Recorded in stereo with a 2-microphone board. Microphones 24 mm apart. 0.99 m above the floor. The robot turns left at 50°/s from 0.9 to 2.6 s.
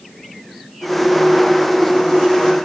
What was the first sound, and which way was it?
Only background noise.